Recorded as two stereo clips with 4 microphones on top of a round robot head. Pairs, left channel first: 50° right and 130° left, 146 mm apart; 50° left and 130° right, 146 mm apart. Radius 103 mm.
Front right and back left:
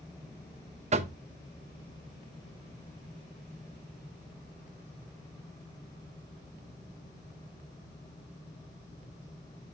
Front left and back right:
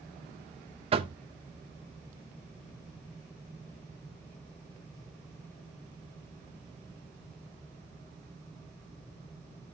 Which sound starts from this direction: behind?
Knocking, at 0.9 s.